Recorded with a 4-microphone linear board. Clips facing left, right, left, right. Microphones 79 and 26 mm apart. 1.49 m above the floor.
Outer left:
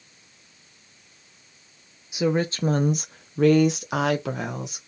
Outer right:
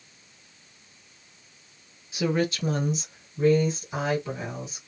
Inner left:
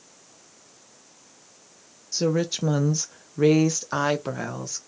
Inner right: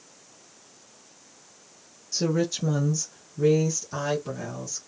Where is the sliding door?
No sliding door in this recording.